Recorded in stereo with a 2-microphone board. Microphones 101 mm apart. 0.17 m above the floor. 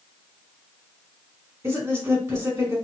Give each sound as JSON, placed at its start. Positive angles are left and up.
{"t": 1.6, "sound": "a woman speaking", "side_deg": -25, "distance_m": 1.5}